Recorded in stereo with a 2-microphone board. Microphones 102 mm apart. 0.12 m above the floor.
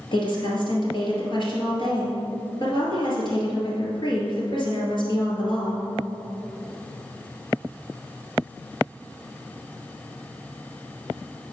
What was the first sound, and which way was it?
A woman speaking, 50° left (ahead or behind).